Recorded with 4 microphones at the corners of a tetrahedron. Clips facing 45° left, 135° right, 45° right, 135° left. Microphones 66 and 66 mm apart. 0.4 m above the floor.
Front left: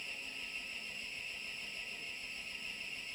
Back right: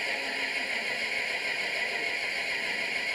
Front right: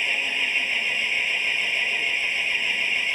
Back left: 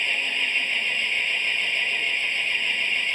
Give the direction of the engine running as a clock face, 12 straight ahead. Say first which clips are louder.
Back right 15 dB, even; 4 o'clock.